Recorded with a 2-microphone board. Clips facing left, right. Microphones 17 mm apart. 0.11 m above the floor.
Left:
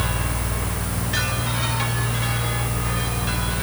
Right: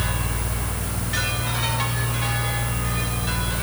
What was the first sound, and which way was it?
Only background noise.